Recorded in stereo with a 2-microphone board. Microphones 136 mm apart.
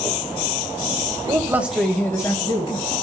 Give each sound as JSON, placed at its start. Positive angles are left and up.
{"t": 1.3, "sound": "a man speaking", "side_deg": -25, "distance_m": 1.5}